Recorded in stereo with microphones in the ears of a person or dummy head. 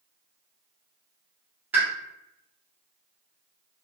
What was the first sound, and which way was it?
A pop, 10° right (ahead or behind).